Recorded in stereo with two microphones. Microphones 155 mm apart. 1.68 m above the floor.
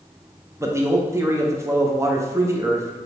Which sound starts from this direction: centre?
A man speaking, at 0.6 s.